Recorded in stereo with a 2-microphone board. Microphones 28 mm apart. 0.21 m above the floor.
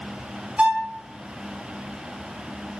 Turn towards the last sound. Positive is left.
turn(degrees=-55)  # may be behind; listen again after turning